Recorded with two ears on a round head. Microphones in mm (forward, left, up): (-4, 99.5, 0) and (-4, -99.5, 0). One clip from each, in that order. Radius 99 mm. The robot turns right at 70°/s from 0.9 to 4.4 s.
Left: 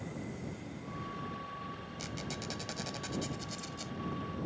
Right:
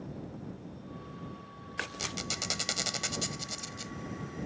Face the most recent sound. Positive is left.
turn(degrees=25)